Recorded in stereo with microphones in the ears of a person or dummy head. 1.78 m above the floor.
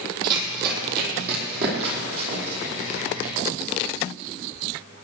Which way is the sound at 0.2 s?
55° right (ahead or behind).